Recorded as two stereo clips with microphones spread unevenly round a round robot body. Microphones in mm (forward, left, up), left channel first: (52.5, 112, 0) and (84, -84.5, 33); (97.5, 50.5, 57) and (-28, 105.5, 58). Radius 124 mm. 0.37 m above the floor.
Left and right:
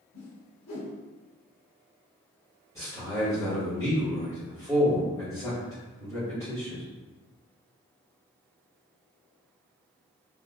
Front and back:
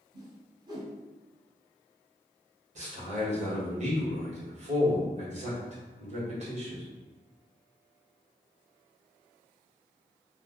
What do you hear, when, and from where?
0.1 s a whoosh: 95° left, 1.3 m
2.8 s a man speaking: 165° left, 1.3 m